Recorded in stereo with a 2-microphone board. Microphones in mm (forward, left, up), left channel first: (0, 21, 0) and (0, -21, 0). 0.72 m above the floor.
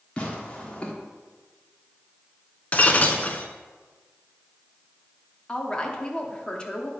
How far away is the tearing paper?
About 1.4 m.